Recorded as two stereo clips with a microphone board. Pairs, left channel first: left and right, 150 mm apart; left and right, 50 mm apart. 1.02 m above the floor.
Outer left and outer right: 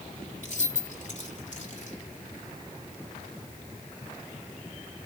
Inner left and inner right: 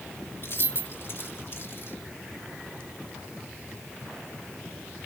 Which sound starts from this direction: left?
Keys jangling, at 0.4 s.